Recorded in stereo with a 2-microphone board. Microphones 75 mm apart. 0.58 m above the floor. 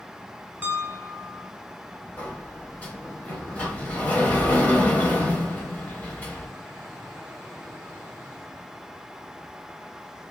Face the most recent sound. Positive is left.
turn(degrees=20)  # may be behind; listen again after turning